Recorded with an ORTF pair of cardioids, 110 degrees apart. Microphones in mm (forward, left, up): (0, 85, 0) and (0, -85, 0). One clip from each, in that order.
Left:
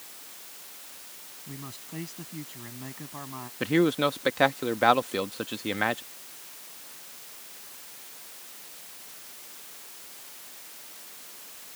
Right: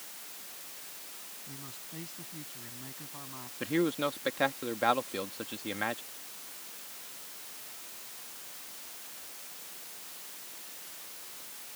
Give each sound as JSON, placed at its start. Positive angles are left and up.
{"t": 1.5, "sound": "a man speaking", "azimuth_deg": 40}
{"t": 3.6, "sound": "a man speaking", "azimuth_deg": 35}